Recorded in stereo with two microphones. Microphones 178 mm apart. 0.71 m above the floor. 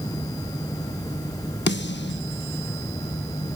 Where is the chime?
I don't hear a chime.